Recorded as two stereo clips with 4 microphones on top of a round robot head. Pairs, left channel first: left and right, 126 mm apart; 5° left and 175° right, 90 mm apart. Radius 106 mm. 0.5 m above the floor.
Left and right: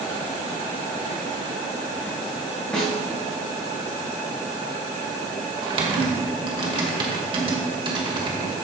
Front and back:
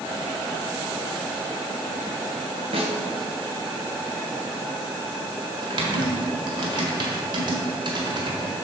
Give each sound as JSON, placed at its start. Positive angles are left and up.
{"t": 2.7, "sound": "a snare drum", "azimuth_deg": 175, "distance_m": 2.5}
{"t": 5.6, "sound": "typing on a keyboard", "azimuth_deg": -140, "distance_m": 1.4}